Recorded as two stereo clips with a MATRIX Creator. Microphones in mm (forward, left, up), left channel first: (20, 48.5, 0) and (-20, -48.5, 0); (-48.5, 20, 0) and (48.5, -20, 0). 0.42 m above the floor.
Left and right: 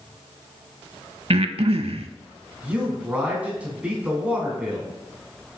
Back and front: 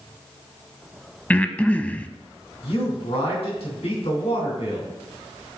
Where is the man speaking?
170° left, 3.5 m.